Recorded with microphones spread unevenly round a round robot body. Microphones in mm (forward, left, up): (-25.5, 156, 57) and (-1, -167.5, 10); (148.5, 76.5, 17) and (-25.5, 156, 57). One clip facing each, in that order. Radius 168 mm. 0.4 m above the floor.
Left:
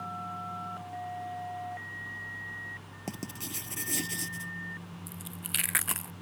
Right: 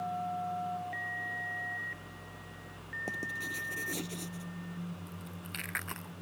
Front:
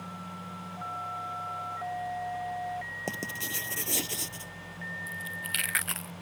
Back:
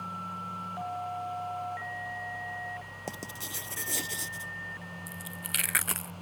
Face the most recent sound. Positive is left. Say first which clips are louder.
# left 1 dB, even
turn(degrees=125)